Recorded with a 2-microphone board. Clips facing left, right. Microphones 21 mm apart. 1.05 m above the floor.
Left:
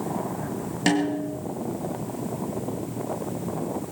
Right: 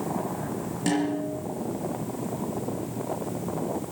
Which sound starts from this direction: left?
A snare drum, at 0.9 s.